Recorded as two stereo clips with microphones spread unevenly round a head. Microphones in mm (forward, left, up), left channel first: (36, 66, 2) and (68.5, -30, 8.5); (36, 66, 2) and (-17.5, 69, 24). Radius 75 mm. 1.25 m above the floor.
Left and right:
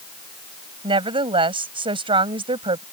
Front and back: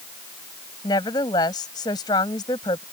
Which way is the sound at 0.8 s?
35° right.